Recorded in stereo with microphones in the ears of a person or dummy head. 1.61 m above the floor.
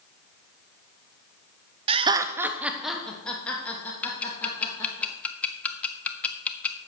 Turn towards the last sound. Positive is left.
turn(degrees=10)  # may be behind; listen again after turning